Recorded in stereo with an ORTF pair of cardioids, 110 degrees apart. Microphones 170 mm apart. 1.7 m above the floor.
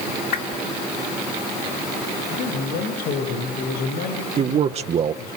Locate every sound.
0.3 s a whoosh: 65° left, 3 m
2.3 s a man speaking: 65° left, 7 m
4.4 s a man speaking: 40° right, 0.7 m